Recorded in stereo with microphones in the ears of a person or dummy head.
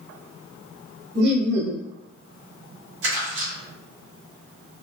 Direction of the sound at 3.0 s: 80° right.